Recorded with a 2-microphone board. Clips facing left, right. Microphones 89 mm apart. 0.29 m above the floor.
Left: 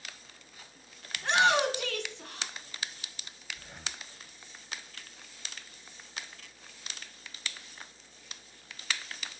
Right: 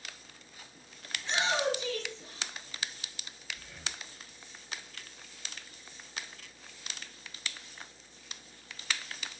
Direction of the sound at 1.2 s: 60° left (ahead or behind).